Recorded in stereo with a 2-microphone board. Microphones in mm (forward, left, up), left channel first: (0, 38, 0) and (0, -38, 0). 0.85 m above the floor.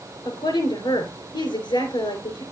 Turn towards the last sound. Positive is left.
turn(degrees=80)